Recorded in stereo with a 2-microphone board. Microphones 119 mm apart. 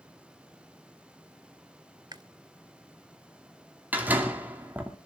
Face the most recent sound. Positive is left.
turn(degrees=-15)  # may be behind; listen again after turning